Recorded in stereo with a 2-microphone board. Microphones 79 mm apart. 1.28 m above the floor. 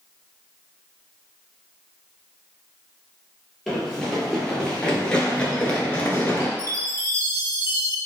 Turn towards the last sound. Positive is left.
turn(degrees=-40)  # may be behind; listen again after turning